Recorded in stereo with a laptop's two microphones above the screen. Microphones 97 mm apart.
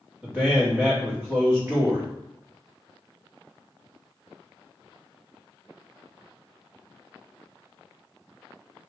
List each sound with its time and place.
0.2 s a man speaking: 20° right (ahead or behind), 1.2 m